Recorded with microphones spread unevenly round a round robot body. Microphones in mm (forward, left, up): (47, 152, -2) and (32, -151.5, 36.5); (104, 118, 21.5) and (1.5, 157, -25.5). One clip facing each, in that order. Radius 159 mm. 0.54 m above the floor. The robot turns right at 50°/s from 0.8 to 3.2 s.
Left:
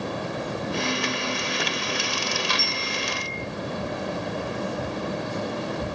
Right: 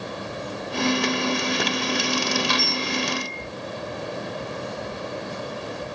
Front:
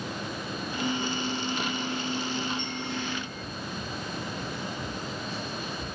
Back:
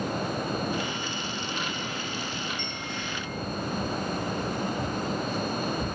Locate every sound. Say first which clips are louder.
2.6 s a bell: right 5 dB, front 2 dB; 155° right, 2.5 m; by 3.4 s 125° right, 2.5 m